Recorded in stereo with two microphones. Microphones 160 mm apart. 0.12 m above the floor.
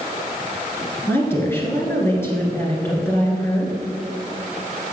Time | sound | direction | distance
1.1 | a woman speaking | 15° left (ahead or behind) | 1.8 m